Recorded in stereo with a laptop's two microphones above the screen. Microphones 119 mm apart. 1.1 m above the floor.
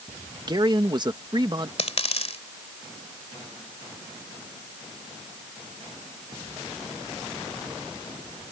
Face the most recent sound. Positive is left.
turn(degrees=55)  # may be behind; listen again after turning